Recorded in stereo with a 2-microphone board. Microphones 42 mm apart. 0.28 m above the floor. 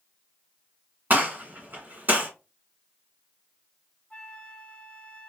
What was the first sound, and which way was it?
A gunshot, 50° right (ahead or behind).